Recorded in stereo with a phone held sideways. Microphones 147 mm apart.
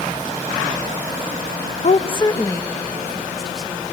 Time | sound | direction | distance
1.8 | a woman speaking | 55° left (ahead or behind) | 0.6 m